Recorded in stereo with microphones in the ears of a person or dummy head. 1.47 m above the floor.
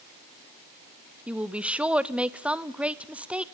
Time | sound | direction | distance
1.3 | a woman speaking | 5° right (ahead or behind) | 0.5 m